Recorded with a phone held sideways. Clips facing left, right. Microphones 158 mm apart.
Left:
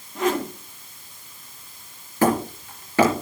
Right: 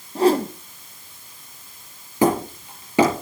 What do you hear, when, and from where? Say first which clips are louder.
0.1 s a whoosh: right 6 dB; 30° right (ahead or behind), 0.8 m
2.2 s hammering: right 1 dB; 15° right (ahead or behind), 4 m